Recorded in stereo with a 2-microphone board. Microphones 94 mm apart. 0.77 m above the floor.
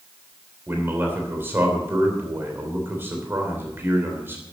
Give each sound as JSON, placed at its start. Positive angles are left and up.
{"t": 0.7, "sound": "a man speaking", "side_deg": -25, "distance_m": 3.0}